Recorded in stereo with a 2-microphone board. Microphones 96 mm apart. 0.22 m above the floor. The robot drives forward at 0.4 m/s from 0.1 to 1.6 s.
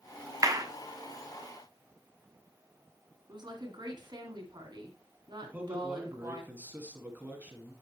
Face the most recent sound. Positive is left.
turn(degrees=-15)  # may be behind; listen again after turning